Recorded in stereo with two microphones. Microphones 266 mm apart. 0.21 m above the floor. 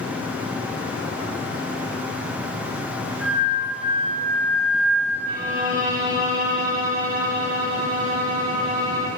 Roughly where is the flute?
Right.